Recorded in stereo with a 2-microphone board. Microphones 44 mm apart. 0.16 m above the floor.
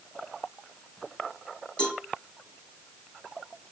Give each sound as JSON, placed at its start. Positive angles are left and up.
{"t": 1.8, "sound": "a cowbell", "side_deg": 20, "distance_m": 4.5}